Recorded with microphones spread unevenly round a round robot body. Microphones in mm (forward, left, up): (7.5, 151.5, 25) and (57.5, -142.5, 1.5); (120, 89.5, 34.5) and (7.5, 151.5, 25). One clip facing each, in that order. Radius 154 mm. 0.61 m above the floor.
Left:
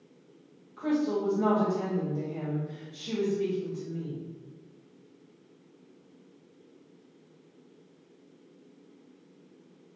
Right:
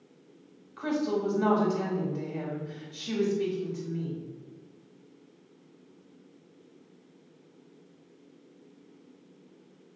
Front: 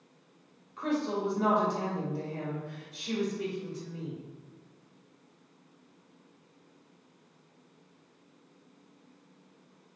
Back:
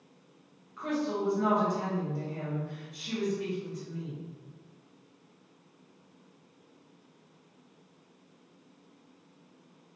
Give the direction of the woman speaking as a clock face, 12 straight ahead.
2 o'clock.